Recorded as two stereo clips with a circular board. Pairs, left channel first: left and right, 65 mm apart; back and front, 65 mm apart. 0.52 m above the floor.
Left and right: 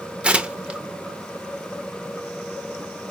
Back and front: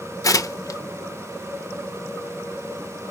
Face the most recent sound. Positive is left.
turn(degrees=-160)